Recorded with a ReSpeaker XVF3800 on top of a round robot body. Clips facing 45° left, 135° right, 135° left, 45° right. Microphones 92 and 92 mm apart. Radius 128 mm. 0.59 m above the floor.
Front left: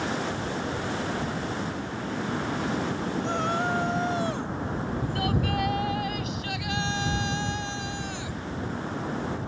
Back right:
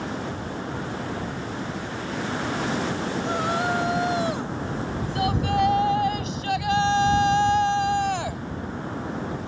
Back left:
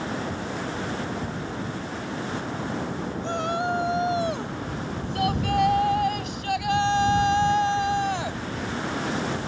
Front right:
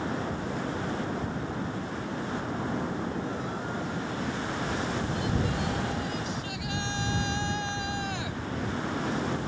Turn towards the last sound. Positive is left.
turn(degrees=-170)